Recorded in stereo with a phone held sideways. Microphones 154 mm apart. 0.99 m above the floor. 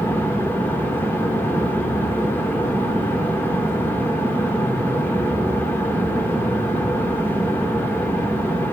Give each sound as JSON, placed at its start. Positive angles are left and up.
{"t": 0.0, "sound": "a fan", "side_deg": 15, "distance_m": 1.2}